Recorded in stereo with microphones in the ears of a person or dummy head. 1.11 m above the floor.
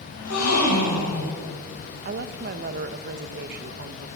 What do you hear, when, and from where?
0.1 s a gasp: 85° left, 8 m
2.0 s a woman speaking: 50° right (ahead or behind), 1.3 m